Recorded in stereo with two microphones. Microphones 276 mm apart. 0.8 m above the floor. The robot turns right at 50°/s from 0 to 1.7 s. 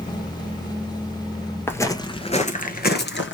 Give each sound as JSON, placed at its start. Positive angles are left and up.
{"t": 1.7, "sound": "footsteps", "side_deg": 10, "distance_m": 1.0}